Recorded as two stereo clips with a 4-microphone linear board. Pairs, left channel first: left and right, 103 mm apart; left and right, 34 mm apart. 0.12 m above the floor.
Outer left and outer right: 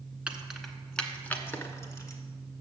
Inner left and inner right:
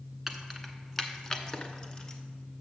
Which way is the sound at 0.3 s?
10° right (ahead or behind).